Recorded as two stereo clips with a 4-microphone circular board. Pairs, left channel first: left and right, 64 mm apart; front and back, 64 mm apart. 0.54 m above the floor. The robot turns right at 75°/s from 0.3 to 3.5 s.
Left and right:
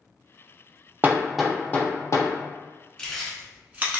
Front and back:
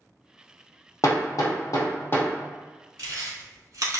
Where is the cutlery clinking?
No cutlery clinking in this recording.